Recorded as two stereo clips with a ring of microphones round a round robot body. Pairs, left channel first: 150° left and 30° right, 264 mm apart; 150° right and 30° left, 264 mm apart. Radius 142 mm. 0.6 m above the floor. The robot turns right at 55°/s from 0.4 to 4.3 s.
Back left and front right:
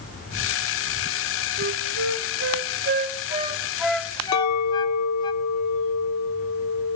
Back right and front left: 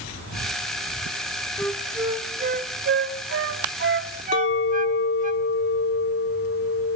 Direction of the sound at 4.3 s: 165° left.